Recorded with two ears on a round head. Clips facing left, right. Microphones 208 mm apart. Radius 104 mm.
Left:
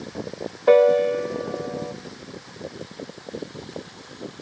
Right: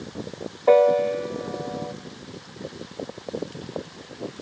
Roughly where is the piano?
Centre.